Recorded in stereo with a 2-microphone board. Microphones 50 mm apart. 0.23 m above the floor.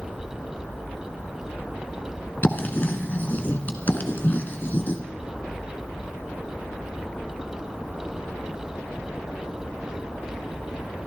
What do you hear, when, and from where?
2.4 s writing: 40° left (ahead or behind), 1.6 m